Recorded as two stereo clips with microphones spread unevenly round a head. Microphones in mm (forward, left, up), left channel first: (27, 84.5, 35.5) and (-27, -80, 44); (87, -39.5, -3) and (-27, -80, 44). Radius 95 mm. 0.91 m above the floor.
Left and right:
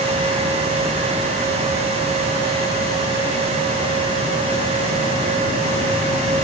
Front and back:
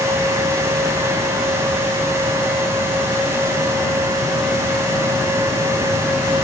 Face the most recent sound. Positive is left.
No sound to turn to.